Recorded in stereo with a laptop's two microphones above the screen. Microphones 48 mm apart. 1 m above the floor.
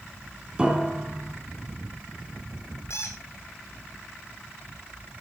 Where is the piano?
20° right (ahead or behind), 4.5 m.